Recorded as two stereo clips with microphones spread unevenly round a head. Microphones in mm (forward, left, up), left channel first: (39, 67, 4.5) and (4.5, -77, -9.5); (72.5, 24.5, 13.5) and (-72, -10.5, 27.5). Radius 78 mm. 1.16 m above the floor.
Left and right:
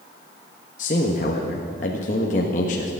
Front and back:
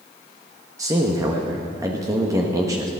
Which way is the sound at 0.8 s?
125° left.